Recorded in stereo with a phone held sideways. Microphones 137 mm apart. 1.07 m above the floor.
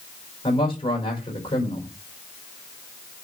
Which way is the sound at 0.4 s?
40° left (ahead or behind).